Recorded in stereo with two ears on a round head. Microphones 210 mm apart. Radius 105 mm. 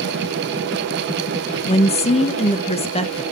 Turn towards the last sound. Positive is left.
turn(degrees=25)  # may be behind; listen again after turning